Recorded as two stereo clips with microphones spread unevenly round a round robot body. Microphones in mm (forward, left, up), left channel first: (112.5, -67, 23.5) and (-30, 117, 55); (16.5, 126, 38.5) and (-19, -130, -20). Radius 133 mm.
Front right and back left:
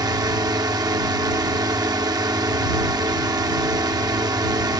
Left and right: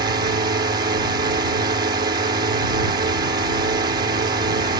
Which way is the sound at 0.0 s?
155° right.